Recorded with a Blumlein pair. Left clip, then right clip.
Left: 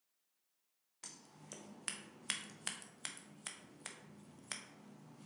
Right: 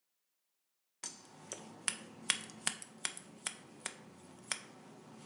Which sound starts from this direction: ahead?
Scissors, at 1.0 s.